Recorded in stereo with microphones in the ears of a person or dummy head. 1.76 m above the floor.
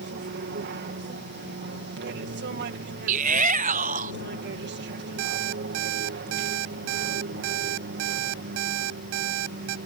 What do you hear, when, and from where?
0.0 s an aircraft: 50° right (ahead or behind)
3.1 s a shout: 45° right (ahead or behind)
5.2 s an alarm clock: 75° right (ahead or behind)